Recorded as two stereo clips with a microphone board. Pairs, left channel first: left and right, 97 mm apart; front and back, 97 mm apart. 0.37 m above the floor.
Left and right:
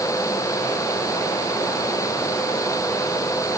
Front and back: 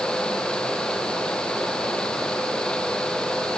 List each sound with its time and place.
Only background noise.